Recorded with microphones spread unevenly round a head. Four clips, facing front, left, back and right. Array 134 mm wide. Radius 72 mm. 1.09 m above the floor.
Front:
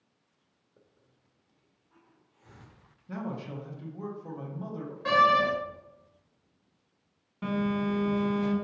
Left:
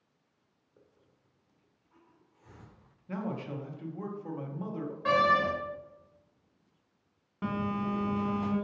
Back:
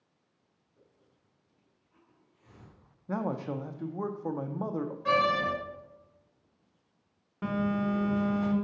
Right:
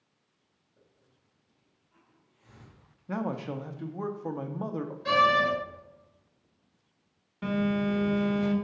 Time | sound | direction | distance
0.8 | a hiss | 40° left | 1.5 m
3.1 | a man speaking | 145° right | 0.7 m
5.0 | a door slam | 50° left | 2 m
7.4 | a phone buzzing | 165° left | 1.3 m